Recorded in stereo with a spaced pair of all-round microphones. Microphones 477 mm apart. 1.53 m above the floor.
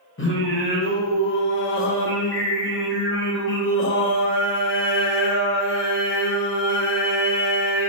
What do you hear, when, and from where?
0.2 s singing: 25° left (ahead or behind), 0.6 m